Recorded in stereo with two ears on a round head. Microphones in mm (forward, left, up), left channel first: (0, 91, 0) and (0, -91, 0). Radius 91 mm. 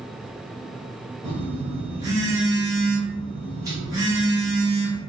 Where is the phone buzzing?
20° right (ahead or behind), 0.8 m.